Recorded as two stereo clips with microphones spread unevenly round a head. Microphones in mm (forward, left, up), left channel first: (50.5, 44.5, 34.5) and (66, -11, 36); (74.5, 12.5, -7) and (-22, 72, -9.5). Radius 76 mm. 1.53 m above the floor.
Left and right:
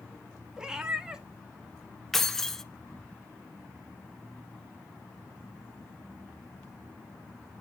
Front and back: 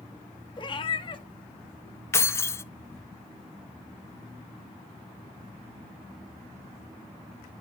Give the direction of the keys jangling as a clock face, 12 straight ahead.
11 o'clock.